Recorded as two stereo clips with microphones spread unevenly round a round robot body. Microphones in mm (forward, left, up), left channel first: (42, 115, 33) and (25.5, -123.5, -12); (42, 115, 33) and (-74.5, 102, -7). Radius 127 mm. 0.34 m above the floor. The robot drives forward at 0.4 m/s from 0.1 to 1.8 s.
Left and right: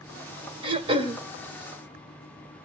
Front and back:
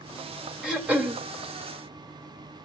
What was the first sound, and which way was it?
Throat clearing, 125° right.